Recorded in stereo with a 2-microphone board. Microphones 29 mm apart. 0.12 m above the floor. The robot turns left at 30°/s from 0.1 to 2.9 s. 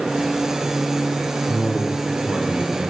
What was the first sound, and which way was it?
A man speaking, 40° right.